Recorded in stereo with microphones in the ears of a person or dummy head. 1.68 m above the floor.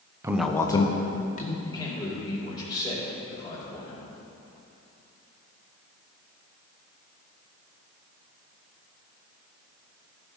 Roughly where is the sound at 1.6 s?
Centre.